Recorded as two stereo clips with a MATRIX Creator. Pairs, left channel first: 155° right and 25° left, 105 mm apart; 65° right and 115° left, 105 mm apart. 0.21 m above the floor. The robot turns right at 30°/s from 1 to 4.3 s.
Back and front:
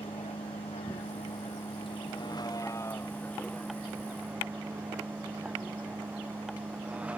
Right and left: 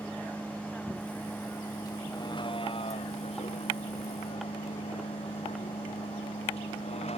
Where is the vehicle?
145° right; by 7.2 s 55° right.